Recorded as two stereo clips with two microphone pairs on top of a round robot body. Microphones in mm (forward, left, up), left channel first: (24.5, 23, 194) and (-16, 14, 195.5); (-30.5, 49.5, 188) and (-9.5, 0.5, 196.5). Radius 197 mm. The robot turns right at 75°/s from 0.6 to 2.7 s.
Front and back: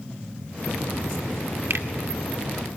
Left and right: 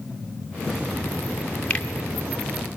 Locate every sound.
1.7 s a finger snap: straight behind, 2 m; by 1.9 s 170° right, 2 m